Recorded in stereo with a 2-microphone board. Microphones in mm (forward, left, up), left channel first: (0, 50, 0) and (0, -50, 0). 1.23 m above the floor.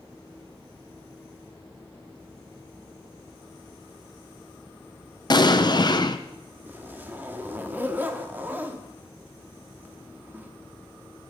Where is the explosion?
45° left (ahead or behind), 0.8 m.